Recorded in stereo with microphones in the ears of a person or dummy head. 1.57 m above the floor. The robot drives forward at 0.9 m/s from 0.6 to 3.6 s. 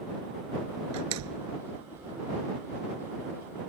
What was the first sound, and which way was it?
A door slam, 85° right.